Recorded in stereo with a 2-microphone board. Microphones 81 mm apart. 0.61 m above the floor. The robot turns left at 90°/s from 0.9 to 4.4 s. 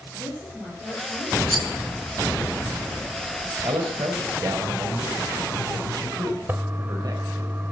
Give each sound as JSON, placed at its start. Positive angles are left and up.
{"t": 0.1, "sound": "a woman speaking", "azimuth_deg": 170, "distance_m": 9.0}
{"t": 1.5, "sound": "a rattle", "side_deg": 0, "distance_m": 2.5}
{"t": 3.6, "sound": "a man speaking", "azimuth_deg": -55, "distance_m": 3.0}
{"t": 6.5, "sound": "a toilet flushing", "side_deg": -30, "distance_m": 1.3}